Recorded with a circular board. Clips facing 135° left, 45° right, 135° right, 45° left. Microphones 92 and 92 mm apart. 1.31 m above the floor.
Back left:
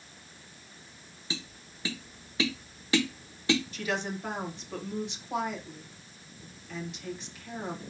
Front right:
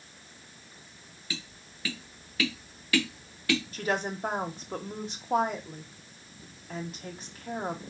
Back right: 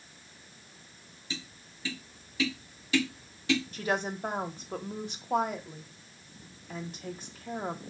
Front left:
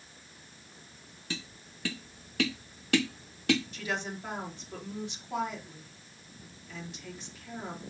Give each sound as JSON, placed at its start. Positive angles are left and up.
{"t": 1.3, "sound": "tapping", "azimuth_deg": 70, "distance_m": 0.9}
{"t": 3.7, "sound": "a woman speaking", "azimuth_deg": -90, "distance_m": 1.0}